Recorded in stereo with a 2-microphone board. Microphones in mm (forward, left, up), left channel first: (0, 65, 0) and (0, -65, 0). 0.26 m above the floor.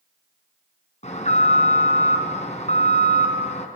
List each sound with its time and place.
1.0 s an alarm: 60° left (ahead or behind), 3.5 m